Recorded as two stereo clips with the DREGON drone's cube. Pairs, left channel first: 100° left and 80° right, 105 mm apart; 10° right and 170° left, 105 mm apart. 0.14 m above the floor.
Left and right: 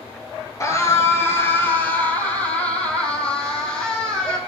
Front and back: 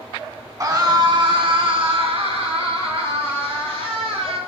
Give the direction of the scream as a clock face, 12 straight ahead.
7 o'clock.